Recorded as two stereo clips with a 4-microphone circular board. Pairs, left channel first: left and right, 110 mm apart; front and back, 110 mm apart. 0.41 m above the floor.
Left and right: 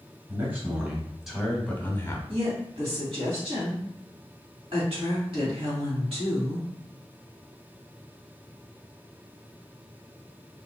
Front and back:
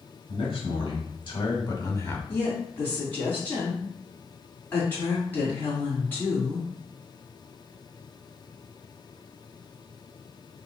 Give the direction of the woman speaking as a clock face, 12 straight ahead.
2 o'clock.